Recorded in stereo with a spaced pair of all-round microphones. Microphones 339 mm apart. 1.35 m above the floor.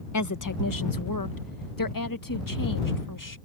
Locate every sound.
0.1 s a woman speaking: 55° left (ahead or behind); by 3.4 s 65° left (ahead or behind)